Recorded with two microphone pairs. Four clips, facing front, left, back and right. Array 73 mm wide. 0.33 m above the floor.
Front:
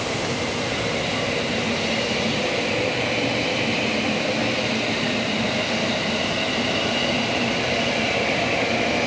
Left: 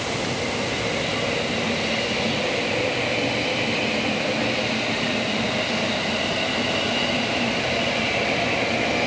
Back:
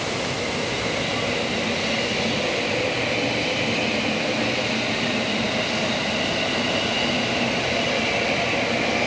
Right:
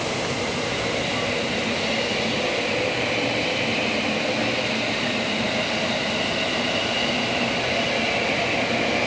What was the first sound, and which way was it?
Only background noise.